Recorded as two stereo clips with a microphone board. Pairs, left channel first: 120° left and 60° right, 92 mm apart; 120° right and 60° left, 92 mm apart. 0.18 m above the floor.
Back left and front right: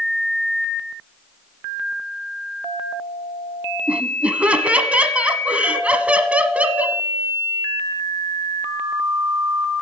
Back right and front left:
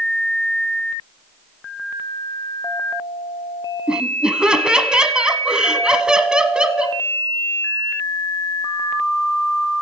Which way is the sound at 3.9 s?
5° right.